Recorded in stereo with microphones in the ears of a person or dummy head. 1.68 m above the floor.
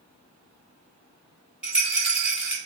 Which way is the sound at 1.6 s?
5° right (ahead or behind).